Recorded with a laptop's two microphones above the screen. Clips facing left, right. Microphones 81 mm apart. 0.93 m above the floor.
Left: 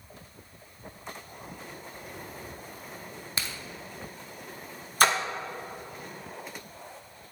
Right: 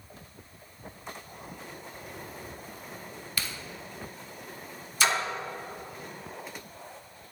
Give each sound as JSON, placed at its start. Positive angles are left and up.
{"t": 3.4, "sound": "a crack", "side_deg": 25, "distance_m": 0.7}
{"t": 5.0, "sound": "a splash", "side_deg": 45, "distance_m": 0.8}